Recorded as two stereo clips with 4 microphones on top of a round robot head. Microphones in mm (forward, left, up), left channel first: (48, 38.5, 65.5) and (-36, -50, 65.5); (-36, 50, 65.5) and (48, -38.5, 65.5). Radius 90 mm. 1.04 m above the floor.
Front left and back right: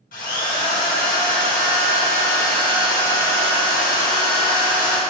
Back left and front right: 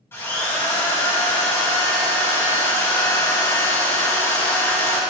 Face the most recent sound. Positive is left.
turn(degrees=60)